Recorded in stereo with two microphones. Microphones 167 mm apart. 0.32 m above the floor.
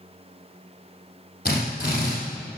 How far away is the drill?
About 6 m.